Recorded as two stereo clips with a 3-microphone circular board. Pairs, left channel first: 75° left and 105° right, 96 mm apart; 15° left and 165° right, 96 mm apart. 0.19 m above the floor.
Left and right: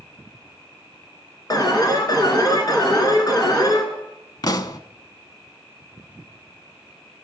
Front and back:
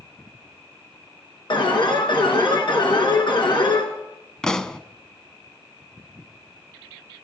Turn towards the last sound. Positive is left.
turn(degrees=95)